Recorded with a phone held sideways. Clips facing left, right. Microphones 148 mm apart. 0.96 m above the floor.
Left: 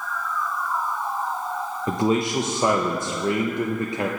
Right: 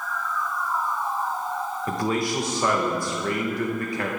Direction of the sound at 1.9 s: 20° left (ahead or behind).